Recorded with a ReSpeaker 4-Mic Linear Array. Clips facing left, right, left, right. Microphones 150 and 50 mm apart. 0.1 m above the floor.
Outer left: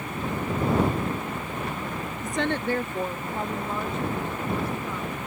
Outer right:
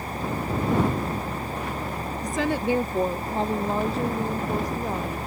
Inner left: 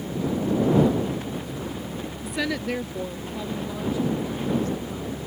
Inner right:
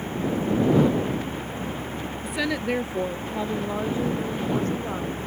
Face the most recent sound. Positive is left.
turn(degrees=-40)  # may be behind; listen again after turning